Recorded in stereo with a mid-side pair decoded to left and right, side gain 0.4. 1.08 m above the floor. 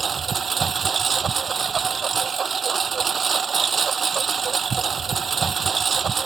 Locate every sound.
0.0 s a lawn mower: 45° right